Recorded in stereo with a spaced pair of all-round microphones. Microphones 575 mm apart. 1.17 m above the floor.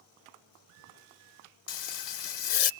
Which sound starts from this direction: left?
Frying, at 1.7 s.